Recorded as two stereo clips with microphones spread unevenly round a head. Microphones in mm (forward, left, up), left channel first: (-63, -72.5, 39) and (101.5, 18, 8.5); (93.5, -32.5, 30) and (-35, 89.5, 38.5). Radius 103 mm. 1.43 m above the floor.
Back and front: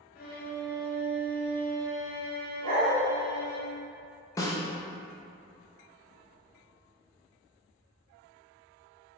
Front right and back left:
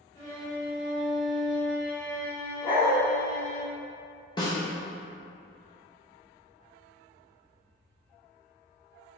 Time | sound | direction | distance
0.1 | a violin | 110° right | 0.9 m
2.6 | a dog barking | 20° left | 1.7 m
4.4 | a snare drum | 105° right | 0.5 m